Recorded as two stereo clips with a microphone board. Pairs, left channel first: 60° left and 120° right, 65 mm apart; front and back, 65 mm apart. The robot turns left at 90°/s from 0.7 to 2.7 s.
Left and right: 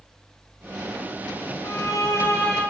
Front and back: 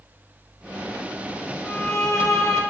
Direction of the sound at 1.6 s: 85° left.